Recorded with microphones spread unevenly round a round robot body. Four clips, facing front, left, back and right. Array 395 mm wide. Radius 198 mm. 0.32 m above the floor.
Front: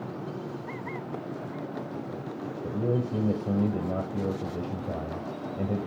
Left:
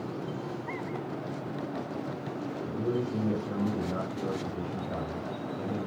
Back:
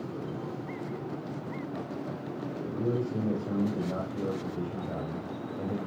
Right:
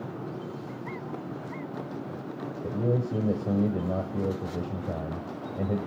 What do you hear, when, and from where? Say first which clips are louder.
2.6 s a man speaking: right 3 dB, front 2 dB; 70° right, 9 m